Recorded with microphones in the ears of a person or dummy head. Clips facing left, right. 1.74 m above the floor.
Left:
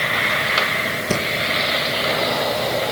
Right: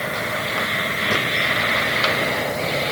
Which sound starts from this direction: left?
Breathing, at 1.1 s.